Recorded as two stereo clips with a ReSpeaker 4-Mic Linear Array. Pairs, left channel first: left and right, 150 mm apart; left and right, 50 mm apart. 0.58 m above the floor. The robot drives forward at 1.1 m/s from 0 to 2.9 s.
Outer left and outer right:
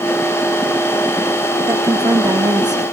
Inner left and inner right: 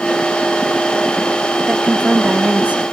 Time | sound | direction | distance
1.7 | a woman speaking | 20° right (ahead or behind) | 1.1 m